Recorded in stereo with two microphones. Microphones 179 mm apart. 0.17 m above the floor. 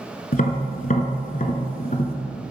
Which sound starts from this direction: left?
Tapping, at 0.3 s.